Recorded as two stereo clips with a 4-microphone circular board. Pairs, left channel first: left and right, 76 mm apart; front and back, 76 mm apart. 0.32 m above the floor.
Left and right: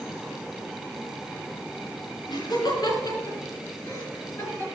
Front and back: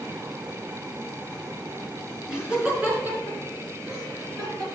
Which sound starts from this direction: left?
Laughter, at 2.3 s.